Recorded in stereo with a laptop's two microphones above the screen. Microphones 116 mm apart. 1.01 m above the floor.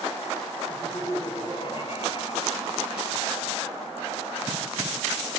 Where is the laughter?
30° left (ahead or behind), 3.5 m; by 3.3 s 70° left (ahead or behind), 3 m.